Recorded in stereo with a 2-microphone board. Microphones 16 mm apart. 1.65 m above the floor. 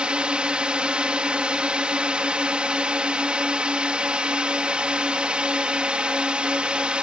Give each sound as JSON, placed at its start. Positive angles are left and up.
{"t": 0.0, "sound": "a drone", "side_deg": -70}